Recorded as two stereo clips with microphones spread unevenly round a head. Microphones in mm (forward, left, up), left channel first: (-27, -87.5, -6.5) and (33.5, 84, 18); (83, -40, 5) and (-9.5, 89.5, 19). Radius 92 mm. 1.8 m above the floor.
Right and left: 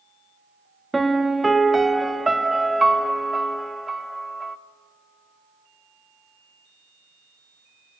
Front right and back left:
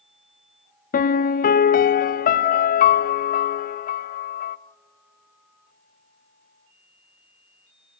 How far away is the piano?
About 0.6 m.